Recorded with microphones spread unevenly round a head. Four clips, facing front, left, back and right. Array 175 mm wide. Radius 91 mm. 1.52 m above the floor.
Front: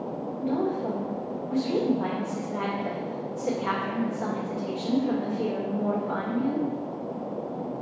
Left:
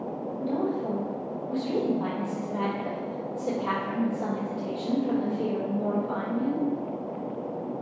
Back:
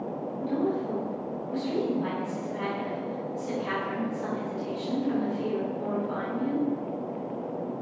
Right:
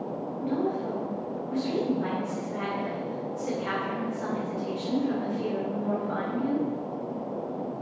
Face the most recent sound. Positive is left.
turn(degrees=35)